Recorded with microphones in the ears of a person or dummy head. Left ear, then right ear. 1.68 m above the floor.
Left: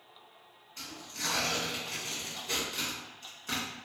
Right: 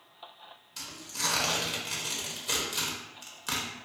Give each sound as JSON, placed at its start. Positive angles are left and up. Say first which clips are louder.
{"t": 0.8, "sound": "tearing paper", "louder": "right 4 dB", "side_deg": -45, "distance_m": 0.7}